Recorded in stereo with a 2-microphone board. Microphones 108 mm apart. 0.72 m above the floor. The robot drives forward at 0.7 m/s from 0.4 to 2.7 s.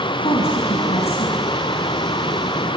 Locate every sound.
0.2 s a woman speaking: 65° left (ahead or behind), 5.5 m; by 1.6 s 70° left (ahead or behind), 5 m